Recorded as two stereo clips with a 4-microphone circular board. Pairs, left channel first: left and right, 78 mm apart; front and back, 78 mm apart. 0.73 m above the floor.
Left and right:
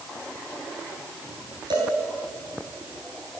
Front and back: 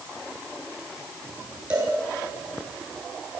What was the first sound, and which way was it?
A cowbell, 105° right.